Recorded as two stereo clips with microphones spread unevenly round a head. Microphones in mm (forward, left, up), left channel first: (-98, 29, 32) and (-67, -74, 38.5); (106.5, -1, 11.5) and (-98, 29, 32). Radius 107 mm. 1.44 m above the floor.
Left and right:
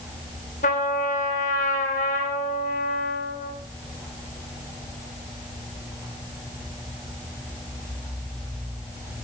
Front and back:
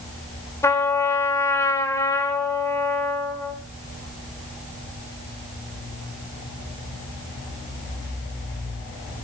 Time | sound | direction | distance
0.6 | a trumpet | 70° left | 3 m